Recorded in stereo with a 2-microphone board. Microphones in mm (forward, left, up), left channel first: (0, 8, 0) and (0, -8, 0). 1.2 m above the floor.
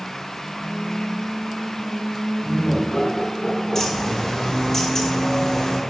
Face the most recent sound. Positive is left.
turn(degrees=30)  # may be behind; listen again after turning